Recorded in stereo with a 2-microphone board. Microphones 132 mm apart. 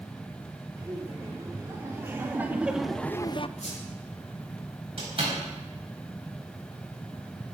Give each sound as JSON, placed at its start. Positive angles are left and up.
{"t": 0.8, "sound": "laughter", "side_deg": -25, "distance_m": 3.5}
{"t": 3.6, "sound": "a squeak", "side_deg": 60, "distance_m": 8.0}
{"t": 5.0, "sound": "a door slam", "side_deg": -45, "distance_m": 6.5}